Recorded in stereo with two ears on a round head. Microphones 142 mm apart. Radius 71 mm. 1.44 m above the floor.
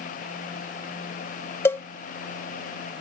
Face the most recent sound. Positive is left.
turn(degrees=15)  # may be behind; listen again after turning